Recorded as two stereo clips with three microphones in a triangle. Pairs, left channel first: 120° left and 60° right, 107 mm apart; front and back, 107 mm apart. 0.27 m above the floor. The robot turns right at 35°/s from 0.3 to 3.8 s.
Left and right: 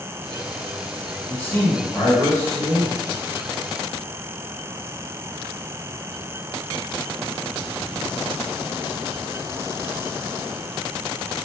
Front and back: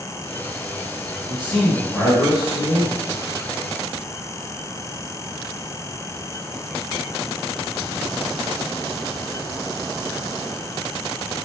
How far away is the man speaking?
About 1.3 m.